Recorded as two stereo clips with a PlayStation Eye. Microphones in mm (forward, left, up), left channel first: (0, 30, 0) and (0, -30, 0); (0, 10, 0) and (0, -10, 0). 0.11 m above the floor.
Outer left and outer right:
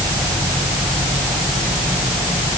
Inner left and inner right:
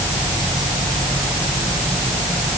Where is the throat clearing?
I don't hear throat clearing.